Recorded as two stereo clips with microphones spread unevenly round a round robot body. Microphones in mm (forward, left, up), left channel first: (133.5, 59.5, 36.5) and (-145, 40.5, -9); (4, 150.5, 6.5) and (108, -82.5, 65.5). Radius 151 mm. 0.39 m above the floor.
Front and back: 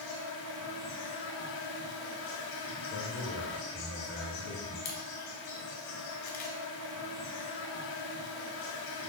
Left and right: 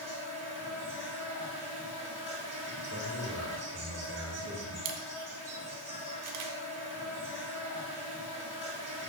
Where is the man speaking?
30° right, 1.3 m.